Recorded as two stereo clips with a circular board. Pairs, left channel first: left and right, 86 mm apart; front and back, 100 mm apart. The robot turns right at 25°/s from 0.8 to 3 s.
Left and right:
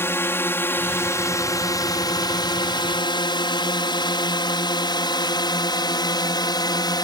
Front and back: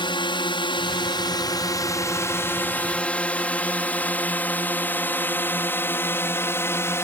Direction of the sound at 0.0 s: 30° left.